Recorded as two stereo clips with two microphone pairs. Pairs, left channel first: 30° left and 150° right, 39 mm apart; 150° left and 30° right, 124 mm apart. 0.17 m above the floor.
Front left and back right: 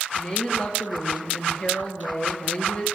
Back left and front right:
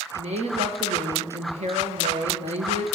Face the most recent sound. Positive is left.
turn(degrees=-25)